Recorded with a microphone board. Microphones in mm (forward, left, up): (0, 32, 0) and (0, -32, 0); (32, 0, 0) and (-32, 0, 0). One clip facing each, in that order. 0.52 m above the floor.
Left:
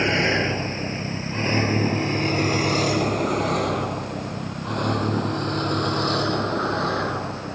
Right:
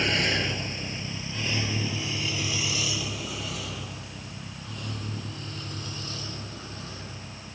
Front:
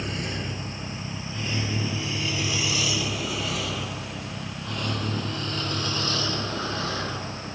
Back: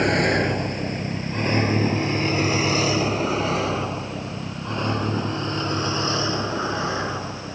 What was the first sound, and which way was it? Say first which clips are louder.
A vehicle: left 6 dB, back 12 dB; 150° left.